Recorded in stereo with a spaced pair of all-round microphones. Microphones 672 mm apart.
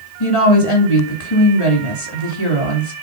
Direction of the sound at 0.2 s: 45° left (ahead or behind).